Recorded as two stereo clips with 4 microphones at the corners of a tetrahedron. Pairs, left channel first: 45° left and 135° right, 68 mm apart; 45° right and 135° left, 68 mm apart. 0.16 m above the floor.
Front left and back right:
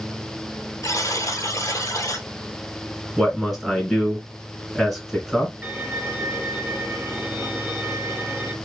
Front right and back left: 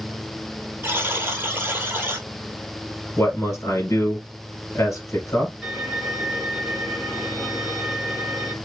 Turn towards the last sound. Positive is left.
turn(degrees=-140)